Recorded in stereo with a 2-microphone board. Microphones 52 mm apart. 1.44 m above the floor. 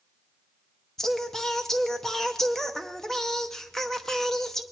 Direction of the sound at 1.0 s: 10° left (ahead or behind).